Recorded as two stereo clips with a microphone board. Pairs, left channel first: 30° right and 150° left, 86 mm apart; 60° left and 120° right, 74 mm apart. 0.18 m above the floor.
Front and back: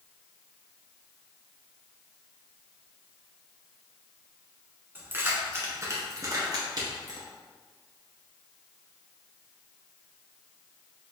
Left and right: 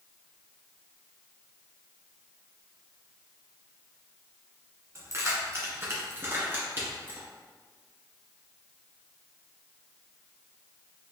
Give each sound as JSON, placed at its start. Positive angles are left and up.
{"t": 5.0, "sound": "keys jangling", "azimuth_deg": -150, "distance_m": 1.4}